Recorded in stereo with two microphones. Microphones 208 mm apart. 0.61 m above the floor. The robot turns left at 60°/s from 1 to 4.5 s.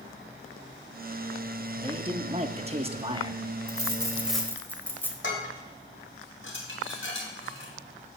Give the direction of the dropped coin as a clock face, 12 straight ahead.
5 o'clock.